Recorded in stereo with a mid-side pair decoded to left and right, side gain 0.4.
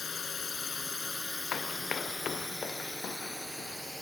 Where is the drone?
50° left; by 4.0 s 5° right.